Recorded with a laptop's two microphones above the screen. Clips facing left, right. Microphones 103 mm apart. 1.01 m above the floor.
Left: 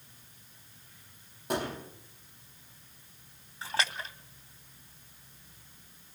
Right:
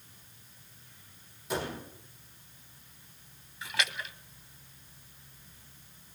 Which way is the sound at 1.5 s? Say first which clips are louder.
Left 2 dB; 60° left (ahead or behind).